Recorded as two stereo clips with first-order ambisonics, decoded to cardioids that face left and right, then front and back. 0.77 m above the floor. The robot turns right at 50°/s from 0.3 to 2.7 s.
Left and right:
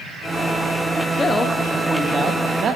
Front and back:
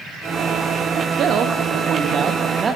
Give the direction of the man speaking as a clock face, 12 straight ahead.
7 o'clock.